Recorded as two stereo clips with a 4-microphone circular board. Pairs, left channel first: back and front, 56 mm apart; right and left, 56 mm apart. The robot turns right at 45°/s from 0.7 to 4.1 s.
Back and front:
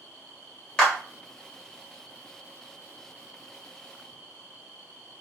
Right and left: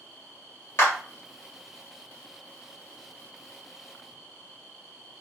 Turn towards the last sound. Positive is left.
turn(degrees=45)